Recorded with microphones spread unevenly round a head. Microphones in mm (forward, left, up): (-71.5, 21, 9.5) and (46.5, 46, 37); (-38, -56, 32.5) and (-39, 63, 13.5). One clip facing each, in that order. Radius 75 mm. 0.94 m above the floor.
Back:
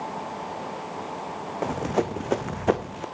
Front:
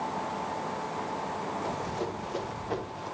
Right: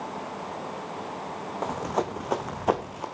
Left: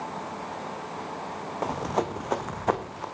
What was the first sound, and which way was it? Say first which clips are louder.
Running footsteps: back 7 dB, left 1 dB; 175° left.